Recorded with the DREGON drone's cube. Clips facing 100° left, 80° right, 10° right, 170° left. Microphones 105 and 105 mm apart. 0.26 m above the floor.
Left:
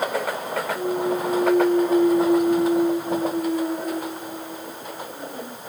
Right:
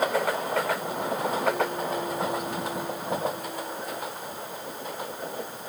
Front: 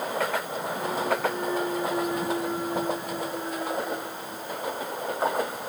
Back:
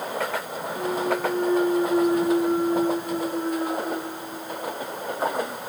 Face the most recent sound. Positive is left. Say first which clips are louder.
# left 6 dB, back 3 dB
turn(degrees=115)